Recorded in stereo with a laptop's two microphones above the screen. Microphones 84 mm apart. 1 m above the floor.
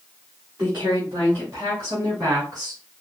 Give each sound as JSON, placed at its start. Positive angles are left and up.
{"t": 0.6, "sound": "a woman speaking", "side_deg": -30, "distance_m": 2.0}